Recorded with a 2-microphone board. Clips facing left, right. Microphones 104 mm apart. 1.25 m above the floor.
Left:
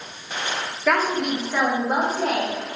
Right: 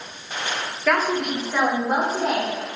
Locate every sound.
0.9 s a woman speaking: 5° left (ahead or behind), 1.2 m; by 2.8 s centre (ahead or behind), 2.5 m